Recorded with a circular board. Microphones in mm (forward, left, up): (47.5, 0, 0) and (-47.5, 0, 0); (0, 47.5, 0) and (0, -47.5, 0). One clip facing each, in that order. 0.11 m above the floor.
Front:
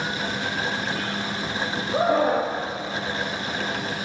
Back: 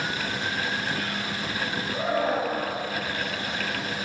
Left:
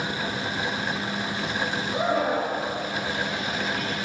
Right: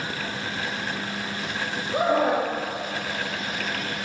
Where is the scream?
35° right, 7.5 m.